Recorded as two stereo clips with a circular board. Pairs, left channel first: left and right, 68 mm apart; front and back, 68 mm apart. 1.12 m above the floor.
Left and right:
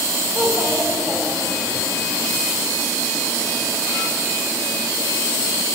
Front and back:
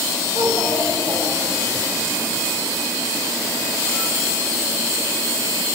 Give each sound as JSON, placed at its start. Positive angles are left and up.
{"t": 0.3, "sound": "a child speaking", "azimuth_deg": -155, "distance_m": 1.3}